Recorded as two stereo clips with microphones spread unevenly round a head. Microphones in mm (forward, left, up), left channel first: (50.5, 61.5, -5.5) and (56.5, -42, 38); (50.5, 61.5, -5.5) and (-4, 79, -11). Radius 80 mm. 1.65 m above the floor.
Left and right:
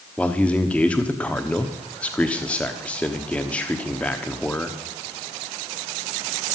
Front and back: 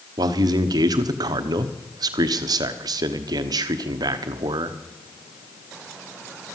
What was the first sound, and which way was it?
A man speaking, 175° left.